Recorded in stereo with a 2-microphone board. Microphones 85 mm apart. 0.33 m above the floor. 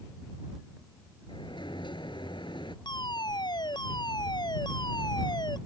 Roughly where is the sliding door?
Left.